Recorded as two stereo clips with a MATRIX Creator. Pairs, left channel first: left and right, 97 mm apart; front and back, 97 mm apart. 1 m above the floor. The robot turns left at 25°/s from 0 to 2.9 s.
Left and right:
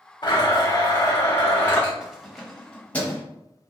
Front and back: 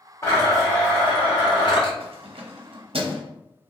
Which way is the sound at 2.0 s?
175° right.